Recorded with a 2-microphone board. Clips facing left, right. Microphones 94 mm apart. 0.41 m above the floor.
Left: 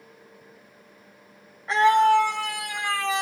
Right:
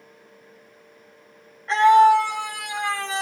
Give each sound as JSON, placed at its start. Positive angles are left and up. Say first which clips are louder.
{"t": 1.7, "sound": "a scream", "louder": "right 4 dB", "side_deg": 5, "distance_m": 1.4}